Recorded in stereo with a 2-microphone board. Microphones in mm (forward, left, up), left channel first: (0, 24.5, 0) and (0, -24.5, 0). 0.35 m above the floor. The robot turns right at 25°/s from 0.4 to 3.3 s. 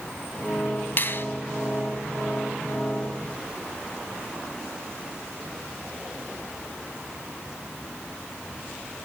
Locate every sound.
1.0 s a finger snap: 45° left (ahead or behind), 1.7 m; by 1.2 s 50° left (ahead or behind), 1.7 m